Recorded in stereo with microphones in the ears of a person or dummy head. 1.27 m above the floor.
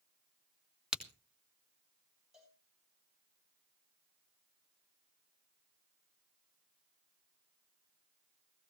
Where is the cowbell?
5° right (ahead or behind), 7 m.